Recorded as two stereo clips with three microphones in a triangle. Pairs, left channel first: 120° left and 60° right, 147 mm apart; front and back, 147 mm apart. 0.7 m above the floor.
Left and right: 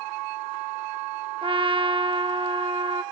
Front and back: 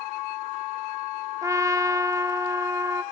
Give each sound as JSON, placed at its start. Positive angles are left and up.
{"t": 1.4, "sound": "a trumpet", "azimuth_deg": -110, "distance_m": 0.7}